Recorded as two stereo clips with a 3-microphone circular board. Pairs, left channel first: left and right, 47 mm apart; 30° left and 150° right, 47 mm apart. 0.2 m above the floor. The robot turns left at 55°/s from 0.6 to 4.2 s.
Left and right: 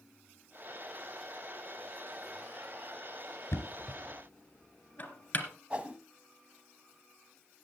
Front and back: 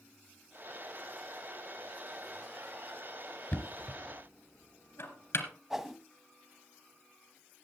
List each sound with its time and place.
3.5 s knocking: 75° left, 2.5 m; by 5.5 s 35° left, 2.5 m
5.7 s a whoosh: 85° right, 1.2 m